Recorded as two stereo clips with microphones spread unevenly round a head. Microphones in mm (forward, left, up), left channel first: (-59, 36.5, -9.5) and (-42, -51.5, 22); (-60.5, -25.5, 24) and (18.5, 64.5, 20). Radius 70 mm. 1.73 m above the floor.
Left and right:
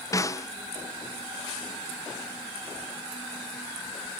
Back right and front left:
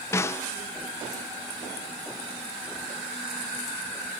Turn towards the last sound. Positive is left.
turn(degrees=160)